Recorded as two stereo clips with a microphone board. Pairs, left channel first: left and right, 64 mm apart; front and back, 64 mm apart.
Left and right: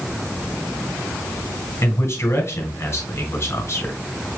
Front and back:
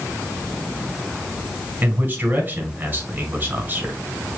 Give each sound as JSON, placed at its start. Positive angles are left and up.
{"t": 1.8, "sound": "a man speaking", "azimuth_deg": 125, "distance_m": 1.6}